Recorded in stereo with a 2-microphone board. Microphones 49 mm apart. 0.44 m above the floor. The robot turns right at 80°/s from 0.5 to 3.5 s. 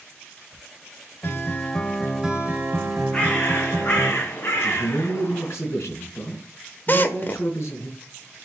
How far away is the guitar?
About 1.5 m.